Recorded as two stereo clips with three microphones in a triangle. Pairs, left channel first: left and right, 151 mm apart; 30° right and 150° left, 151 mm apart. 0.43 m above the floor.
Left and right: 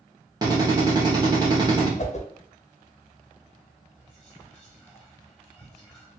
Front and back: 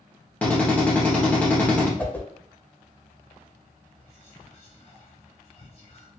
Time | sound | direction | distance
0.4 | a drill | 100° right | 1.4 m
2.0 | a whoosh | 50° left | 0.7 m
4.0 | whispering | 5° left | 1.6 m